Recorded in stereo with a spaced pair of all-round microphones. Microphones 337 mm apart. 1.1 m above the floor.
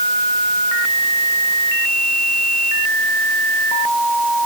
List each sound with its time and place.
Only background noise.